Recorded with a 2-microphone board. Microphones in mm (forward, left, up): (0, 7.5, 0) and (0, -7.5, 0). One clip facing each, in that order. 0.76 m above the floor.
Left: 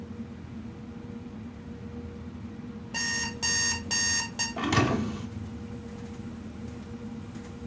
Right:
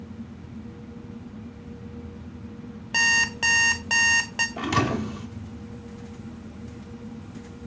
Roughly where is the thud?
Right.